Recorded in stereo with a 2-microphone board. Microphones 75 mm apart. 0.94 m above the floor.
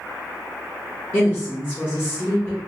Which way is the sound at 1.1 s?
30° left (ahead or behind).